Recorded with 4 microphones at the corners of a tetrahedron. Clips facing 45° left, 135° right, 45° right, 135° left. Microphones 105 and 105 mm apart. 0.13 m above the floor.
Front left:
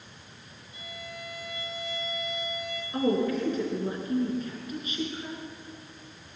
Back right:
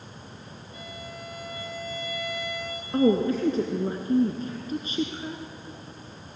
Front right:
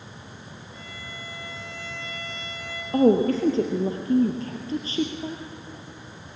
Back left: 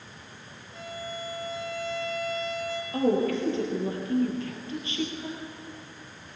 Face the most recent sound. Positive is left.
turn(degrees=-85)